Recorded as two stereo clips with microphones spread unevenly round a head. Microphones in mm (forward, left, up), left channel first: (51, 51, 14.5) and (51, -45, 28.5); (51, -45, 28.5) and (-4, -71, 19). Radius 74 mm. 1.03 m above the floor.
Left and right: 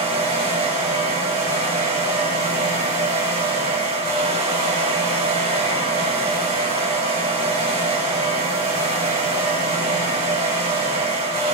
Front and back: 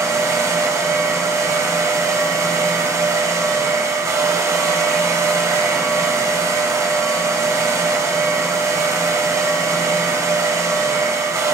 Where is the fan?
120° right, 1.3 m.